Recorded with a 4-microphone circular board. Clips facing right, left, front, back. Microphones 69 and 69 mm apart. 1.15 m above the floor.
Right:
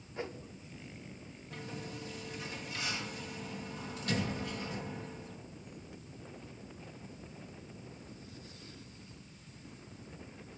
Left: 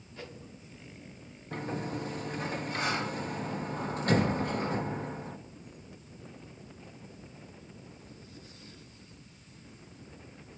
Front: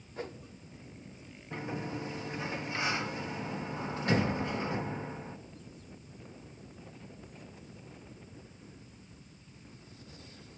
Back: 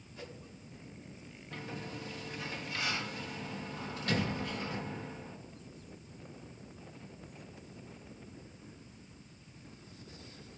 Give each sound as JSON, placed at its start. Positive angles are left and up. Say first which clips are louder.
{"t": 0.2, "sound": "a whoosh", "louder": "right 5 dB, front 7 dB", "azimuth_deg": -30, "distance_m": 0.9}
{"t": 1.5, "sound": "a sliding door", "louder": "left 9 dB, front 6 dB", "azimuth_deg": 60, "distance_m": 0.7}